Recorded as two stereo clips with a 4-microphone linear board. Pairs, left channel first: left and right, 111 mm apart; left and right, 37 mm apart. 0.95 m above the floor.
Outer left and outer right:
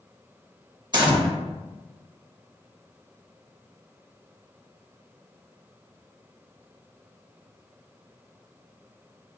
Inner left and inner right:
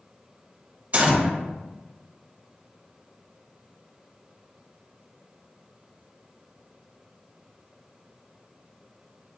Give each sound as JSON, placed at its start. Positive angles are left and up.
{"t": 0.9, "sound": "a gunshot", "side_deg": -40, "distance_m": 1.0}